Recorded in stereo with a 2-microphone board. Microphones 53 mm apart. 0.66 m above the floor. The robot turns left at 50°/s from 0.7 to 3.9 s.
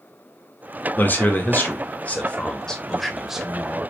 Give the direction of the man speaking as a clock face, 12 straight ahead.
8 o'clock.